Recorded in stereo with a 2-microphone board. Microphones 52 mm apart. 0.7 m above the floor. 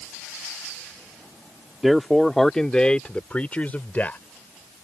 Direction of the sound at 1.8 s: 5° right (ahead or behind).